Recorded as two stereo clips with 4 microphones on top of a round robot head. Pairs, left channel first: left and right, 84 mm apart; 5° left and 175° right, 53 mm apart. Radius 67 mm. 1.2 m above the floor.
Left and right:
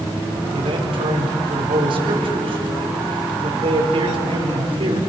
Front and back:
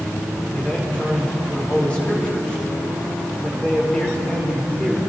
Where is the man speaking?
70° right, 5 m.